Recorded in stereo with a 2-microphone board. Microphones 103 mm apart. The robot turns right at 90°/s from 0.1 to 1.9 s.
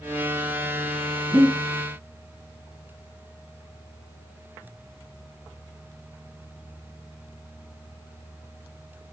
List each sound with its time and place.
1.3 s breathing: 45° right (ahead or behind), 1.4 m; by 1.6 s 65° right (ahead or behind), 1.4 m